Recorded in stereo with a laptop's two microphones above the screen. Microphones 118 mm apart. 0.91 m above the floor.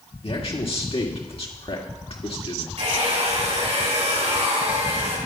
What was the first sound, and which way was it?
A man speaking, 55° left (ahead or behind).